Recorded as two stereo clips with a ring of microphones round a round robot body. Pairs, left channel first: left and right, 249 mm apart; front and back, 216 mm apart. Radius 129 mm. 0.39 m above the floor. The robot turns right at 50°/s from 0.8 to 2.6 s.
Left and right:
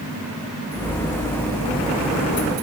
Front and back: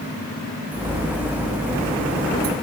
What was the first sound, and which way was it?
Only background noise.